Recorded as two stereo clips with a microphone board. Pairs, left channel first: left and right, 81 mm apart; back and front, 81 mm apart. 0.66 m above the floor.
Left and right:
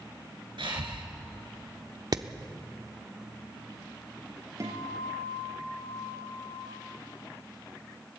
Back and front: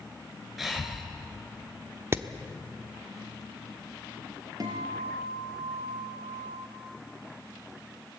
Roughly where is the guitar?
Ahead right.